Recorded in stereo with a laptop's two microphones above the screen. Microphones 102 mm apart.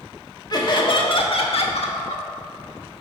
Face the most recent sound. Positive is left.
turn(degrees=75)  # may be behind; listen again after turning